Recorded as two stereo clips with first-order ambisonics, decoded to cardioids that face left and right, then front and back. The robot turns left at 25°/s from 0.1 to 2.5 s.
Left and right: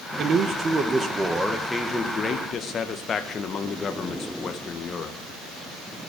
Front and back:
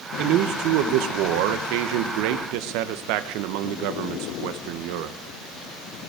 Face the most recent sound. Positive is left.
turn(degrees=160)